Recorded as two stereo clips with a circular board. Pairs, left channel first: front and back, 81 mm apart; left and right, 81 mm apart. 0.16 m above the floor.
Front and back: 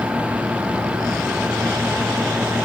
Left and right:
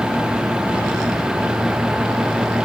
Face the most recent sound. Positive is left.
No sound to turn to.